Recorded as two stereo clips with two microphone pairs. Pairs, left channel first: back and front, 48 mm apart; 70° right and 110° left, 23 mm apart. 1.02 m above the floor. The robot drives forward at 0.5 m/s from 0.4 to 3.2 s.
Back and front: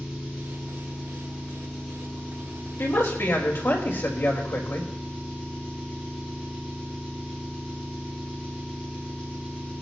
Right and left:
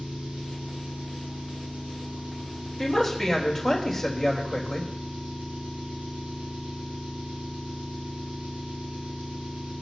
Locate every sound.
0.0 s an engine running: 95° left, 9 m; by 9.8 s 105° left, 9 m
2.8 s a woman speaking: 150° right, 3.5 m; by 4.9 s 155° right, 3.5 m